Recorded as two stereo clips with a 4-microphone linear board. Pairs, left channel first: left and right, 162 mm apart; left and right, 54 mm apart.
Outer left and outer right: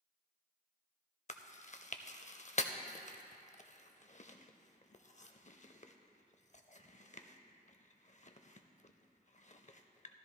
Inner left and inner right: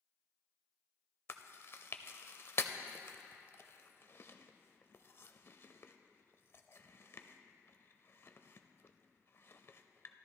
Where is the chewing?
45° left (ahead or behind), 0.5 m.